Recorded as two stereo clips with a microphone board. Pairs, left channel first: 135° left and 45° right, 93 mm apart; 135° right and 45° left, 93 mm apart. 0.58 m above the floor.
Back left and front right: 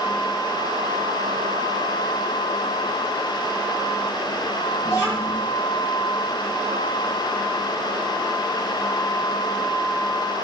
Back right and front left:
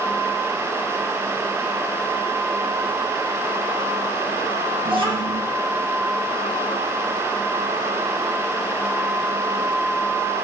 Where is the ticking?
I don't hear ticking.